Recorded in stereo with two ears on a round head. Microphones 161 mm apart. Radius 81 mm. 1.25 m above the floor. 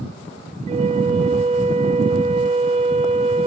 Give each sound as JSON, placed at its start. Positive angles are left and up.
{"t": 0.7, "sound": "a flute", "side_deg": -30, "distance_m": 0.6}